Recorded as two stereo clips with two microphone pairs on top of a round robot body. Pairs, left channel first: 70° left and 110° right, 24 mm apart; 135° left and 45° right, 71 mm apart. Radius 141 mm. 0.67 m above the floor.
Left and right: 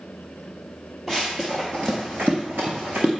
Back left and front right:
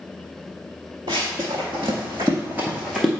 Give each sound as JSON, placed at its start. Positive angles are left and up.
{"t": 1.1, "sound": "running footsteps", "azimuth_deg": -30, "distance_m": 1.0}